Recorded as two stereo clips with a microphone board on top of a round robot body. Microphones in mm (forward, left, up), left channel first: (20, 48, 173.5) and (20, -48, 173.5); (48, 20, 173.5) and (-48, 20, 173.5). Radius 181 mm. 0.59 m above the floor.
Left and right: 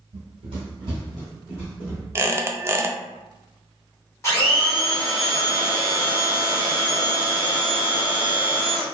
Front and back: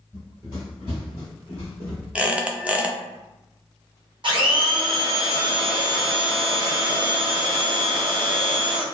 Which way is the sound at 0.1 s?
100° right.